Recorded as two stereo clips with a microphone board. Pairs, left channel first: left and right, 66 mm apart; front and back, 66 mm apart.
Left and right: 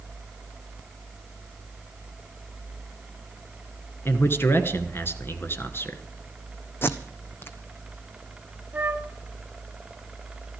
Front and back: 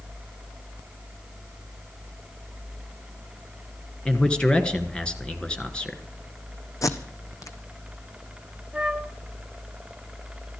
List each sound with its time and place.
4.0 s a man speaking: 70° left, 1.7 m
6.8 s tape being pulled: 35° left, 1.3 m
8.7 s a flute: 120° right, 1.0 m